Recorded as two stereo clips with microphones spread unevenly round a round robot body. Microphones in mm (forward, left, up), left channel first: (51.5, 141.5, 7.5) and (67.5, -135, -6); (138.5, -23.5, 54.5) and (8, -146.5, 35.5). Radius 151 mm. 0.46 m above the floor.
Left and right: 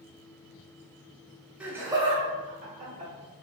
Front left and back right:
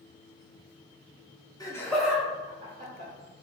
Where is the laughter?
10° right, 1.1 m; by 3.1 s 125° right, 1.6 m.